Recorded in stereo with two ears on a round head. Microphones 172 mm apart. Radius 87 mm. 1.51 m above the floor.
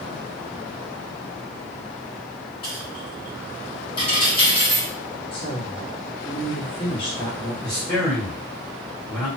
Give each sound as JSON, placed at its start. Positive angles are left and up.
{"t": 2.6, "sound": "a dropped coin", "side_deg": 30, "distance_m": 1.7}
{"t": 5.3, "sound": "a woman speaking", "side_deg": 30, "distance_m": 1.4}
{"t": 7.6, "sound": "a man speaking", "side_deg": 10, "distance_m": 1.7}